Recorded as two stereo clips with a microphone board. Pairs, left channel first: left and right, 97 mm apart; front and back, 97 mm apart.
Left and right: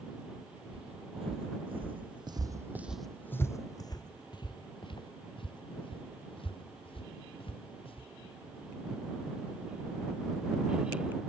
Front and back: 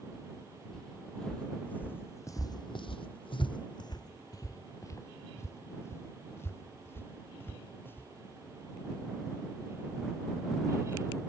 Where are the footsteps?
85° right; by 8.1 s 70° left.